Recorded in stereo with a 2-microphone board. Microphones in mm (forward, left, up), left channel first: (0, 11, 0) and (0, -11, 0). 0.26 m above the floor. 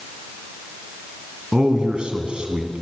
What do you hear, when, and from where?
1.5 s a man speaking: 50° right (ahead or behind), 2.5 m